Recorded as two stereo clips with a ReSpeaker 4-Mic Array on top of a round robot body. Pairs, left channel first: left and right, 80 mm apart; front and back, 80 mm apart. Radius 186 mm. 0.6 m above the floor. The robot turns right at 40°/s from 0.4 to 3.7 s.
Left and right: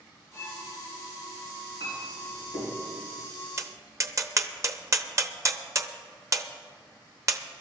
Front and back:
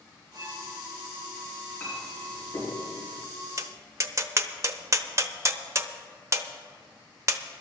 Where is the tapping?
140° right, 1.0 m; by 7.4 s 135° right, 1.0 m.